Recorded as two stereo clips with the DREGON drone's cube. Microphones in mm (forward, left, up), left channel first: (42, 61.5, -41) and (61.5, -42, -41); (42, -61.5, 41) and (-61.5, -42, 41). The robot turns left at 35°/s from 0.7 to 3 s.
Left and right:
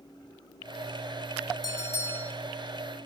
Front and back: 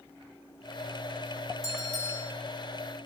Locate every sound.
1.6 s a bell: 50° left, 6 m; by 2.3 s 25° left, 6 m